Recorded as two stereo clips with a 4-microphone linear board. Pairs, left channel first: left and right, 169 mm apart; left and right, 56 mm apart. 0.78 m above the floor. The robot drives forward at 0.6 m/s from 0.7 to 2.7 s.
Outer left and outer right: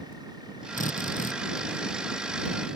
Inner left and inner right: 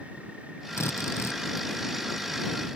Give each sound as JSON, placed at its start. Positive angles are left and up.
{"t": 0.8, "sound": "a drill", "side_deg": 55}